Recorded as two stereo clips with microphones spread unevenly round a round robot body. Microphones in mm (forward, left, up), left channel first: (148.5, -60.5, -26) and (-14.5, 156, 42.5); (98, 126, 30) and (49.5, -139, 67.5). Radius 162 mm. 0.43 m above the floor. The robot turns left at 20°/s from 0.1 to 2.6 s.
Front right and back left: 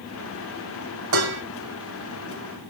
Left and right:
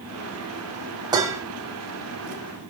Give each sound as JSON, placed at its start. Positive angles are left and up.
{"t": 1.1, "sound": "dishes clattering", "azimuth_deg": 180, "distance_m": 1.6}